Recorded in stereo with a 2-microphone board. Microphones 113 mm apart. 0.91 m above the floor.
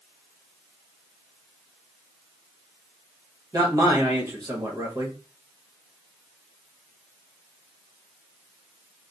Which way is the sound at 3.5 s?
35° right (ahead or behind).